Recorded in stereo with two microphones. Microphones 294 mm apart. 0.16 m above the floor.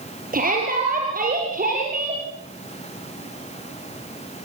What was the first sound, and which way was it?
A shout, 30° right (ahead or behind).